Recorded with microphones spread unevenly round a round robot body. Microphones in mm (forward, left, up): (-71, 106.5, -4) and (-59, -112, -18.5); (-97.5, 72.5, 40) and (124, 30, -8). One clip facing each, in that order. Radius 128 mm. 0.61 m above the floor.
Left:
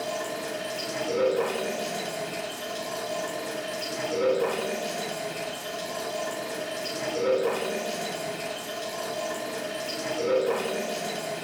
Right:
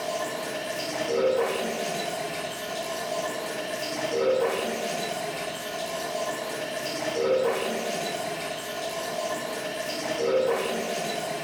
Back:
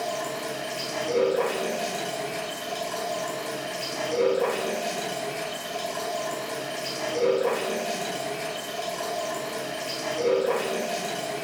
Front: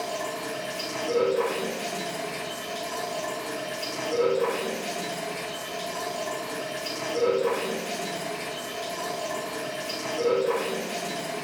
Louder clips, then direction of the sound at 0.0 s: Right 1 dB, back 1 dB; 155° left.